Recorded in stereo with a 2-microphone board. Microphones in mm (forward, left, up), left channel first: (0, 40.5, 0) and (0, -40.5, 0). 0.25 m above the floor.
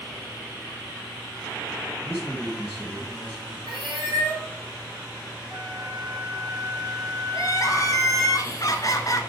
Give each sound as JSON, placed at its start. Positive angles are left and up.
{"t": 2.0, "sound": "a man speaking", "side_deg": 0, "distance_m": 2.0}
{"t": 3.7, "sound": "a cat meowing", "side_deg": -75, "distance_m": 3.0}
{"t": 5.5, "sound": "a flute", "side_deg": -65, "distance_m": 5.5}
{"t": 7.3, "sound": "crying", "side_deg": 50, "distance_m": 1.3}